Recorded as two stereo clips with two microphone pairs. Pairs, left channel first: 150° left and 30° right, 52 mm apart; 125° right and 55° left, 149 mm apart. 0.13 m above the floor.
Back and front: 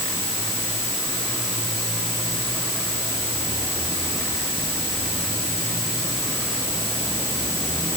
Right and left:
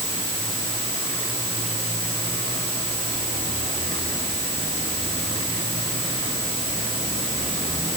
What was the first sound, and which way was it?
Only background noise.